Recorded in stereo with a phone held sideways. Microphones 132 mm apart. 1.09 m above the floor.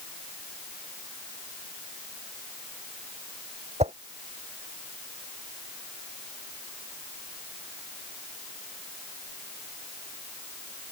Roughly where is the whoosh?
Right.